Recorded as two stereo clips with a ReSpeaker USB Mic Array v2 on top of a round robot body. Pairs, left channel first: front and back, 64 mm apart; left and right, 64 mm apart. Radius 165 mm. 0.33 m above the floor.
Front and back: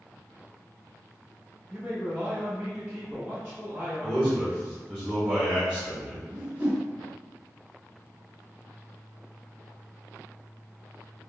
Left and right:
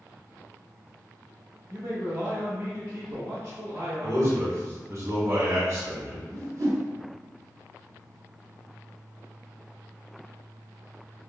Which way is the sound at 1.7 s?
130° right.